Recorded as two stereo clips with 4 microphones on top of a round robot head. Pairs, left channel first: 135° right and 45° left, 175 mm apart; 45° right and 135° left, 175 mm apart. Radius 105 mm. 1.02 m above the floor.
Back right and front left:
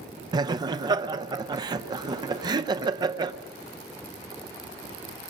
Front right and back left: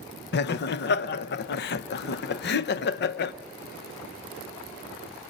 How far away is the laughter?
About 0.6 m.